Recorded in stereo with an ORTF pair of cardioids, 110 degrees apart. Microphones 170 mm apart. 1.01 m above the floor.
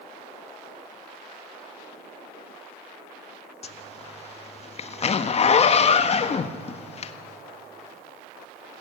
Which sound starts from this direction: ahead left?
A zipper, at 3.6 s.